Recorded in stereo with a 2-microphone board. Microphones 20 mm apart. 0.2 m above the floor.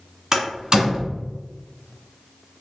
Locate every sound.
0.3 s a door slam: 30° right (ahead or behind), 1.7 m